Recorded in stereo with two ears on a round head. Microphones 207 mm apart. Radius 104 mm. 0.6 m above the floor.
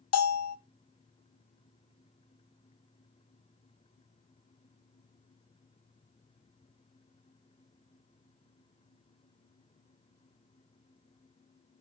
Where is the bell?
65° left (ahead or behind), 0.8 m.